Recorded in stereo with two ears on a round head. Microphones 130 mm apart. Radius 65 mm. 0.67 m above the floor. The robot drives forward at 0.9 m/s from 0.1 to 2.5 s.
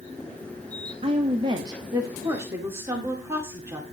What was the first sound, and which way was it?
A woman speaking, 40° right (ahead or behind).